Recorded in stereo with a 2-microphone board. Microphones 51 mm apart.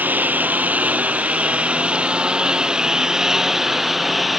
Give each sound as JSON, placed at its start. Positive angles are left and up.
{"t": 0.0, "sound": "a lawn mower", "side_deg": -35}